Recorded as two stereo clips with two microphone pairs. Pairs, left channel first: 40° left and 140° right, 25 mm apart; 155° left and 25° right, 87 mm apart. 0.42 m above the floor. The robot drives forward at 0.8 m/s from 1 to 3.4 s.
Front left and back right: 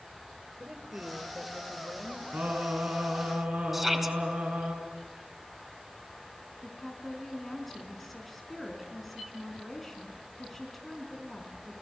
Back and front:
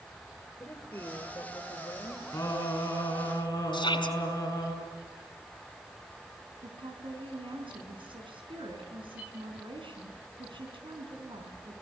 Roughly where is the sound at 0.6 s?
Behind.